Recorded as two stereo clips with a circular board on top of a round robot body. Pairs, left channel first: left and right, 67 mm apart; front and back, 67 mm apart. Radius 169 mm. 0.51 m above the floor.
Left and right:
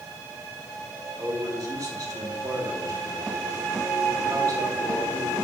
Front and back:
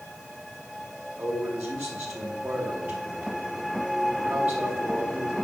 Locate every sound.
1.2 s a man speaking: 120° right, 2.0 m